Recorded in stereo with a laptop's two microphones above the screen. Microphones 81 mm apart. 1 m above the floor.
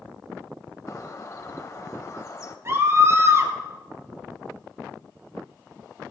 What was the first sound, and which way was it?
A bird, 45° left (ahead or behind).